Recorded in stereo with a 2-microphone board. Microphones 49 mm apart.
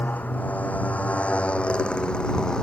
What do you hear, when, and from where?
0.0 s a motorcycle: 35° left (ahead or behind); by 2.6 s 15° left (ahead or behind)